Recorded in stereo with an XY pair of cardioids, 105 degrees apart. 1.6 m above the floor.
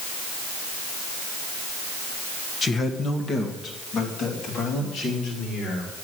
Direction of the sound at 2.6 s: 35° left.